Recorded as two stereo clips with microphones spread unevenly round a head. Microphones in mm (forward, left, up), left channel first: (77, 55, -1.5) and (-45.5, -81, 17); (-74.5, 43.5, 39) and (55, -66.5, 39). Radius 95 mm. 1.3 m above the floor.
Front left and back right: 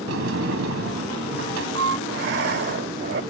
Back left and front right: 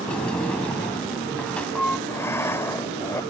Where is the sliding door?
135° right.